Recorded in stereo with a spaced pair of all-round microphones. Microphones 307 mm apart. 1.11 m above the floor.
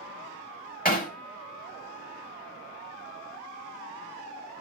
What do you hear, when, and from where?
0.8 s hammering: 30° left (ahead or behind), 1.9 m